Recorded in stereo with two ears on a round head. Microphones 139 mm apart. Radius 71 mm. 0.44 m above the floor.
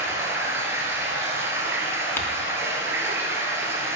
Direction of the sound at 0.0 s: 15° right (ahead or behind).